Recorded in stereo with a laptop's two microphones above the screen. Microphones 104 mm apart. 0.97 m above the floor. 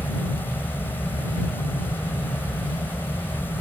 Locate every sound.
0.0 s a fan: 20° left (ahead or behind)